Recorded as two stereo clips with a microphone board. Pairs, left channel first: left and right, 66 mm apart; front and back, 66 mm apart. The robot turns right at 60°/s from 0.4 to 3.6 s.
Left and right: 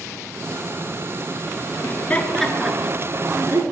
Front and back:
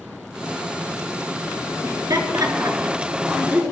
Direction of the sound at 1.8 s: 140° left.